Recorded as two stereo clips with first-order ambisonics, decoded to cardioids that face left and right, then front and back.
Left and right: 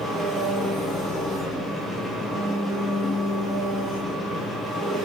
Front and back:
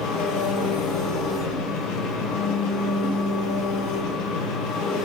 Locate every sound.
0.0 s an engine running: 15° left, 5 m